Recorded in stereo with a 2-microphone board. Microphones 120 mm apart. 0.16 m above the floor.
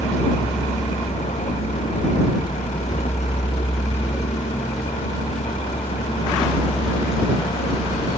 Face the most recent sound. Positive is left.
turn(degrees=90)